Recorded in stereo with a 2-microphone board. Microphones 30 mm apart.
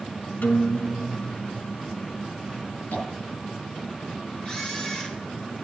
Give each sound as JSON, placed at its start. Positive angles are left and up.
{"t": 0.4, "sound": "a guitar", "side_deg": 85, "distance_m": 1.7}
{"t": 2.9, "sound": "tapping", "side_deg": 75, "distance_m": 9.5}
{"t": 4.5, "sound": "a camera shutter", "side_deg": 30, "distance_m": 5.5}